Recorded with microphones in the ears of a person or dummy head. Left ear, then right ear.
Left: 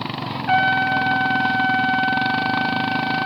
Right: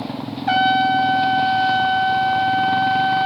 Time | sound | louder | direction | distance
0.5 | a trumpet | right 2 dB | 25° right (ahead or behind) | 0.6 m